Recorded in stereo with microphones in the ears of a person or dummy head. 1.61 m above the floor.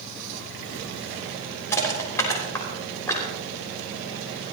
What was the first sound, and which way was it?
Crushing, 15° left (ahead or behind).